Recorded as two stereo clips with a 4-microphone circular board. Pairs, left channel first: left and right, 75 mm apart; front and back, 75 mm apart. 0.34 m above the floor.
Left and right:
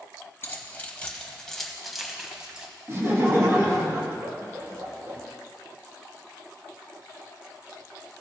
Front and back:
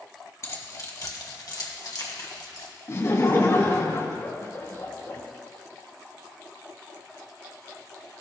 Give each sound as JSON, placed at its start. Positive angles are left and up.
{"t": 0.4, "sound": "keys jangling", "azimuth_deg": 35, "distance_m": 1.4}
{"t": 2.9, "sound": "laughter", "azimuth_deg": -40, "distance_m": 2.5}